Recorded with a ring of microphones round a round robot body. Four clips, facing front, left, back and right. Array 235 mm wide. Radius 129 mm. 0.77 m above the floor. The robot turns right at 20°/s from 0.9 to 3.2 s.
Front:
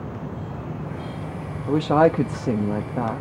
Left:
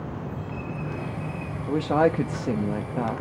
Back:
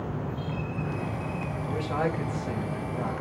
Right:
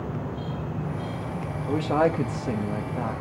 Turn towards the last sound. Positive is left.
turn(degrees=30)